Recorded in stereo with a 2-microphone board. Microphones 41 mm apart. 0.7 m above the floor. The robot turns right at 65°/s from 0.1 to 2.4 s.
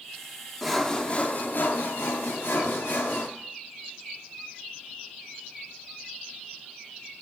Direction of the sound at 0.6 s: 5° right.